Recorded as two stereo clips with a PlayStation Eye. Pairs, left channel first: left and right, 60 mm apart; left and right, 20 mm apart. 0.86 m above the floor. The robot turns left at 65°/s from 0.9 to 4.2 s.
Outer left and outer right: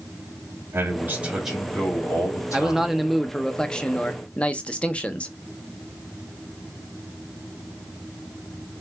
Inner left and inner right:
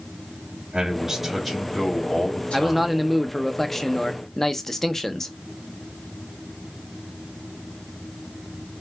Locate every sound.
0.7 s a man speaking: 135° right, 1.7 m; by 3.0 s 85° left, 1.7 m
2.5 s a man speaking: 10° right (ahead or behind), 0.7 m; by 5.3 s 20° left (ahead or behind), 0.7 m